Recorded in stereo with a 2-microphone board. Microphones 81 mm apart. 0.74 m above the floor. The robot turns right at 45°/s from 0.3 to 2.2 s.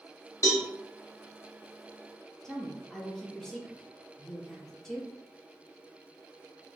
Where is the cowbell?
45° left (ahead or behind), 1.3 m; by 0.7 s 40° left (ahead or behind), 1.3 m.